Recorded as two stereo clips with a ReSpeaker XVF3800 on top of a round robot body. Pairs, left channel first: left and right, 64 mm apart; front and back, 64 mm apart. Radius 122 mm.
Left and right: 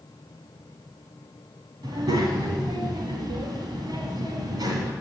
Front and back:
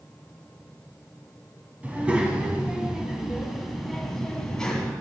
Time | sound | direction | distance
1.8 | a child speaking | 110° right | 3 m